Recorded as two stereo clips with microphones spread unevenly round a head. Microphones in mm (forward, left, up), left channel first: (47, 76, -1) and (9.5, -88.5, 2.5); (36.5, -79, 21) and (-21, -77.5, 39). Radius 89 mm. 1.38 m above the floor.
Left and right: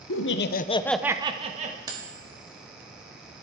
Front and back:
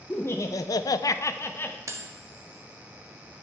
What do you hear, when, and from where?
0.1 s laughter: 70° left, 1.0 m; by 1.8 s 55° right, 1.4 m
1.9 s cutlery clinking: 175° right, 1.6 m